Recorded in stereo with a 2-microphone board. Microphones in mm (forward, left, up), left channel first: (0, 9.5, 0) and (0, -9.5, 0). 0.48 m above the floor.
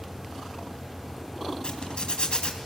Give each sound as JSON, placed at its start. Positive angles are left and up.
{"t": 1.6, "sound": "a zipper", "side_deg": 55, "distance_m": 3.0}